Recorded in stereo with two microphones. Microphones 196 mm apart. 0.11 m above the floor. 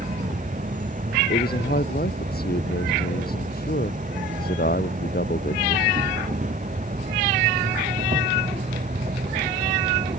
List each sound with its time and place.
0.0 s an insect: 40° right (ahead or behind)
1.3 s a man speaking: 55° left (ahead or behind)